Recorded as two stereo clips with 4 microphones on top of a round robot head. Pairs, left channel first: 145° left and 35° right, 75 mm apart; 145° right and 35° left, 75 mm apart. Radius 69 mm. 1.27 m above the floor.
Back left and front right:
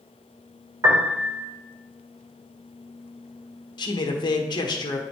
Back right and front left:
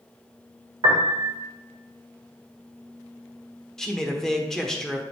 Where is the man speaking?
130° left, 1.3 m.